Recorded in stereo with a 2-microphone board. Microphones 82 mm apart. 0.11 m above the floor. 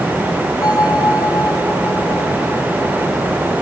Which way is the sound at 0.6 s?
45° left (ahead or behind).